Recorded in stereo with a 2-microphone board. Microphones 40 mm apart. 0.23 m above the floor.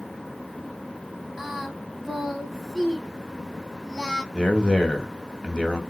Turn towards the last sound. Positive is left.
turn(degrees=25)  # may be behind; listen again after turning